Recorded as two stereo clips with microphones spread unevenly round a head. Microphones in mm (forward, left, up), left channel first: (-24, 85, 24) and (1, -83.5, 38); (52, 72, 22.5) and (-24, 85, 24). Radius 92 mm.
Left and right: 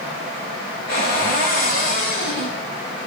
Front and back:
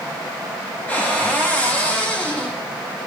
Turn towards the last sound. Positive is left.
turn(degrees=60)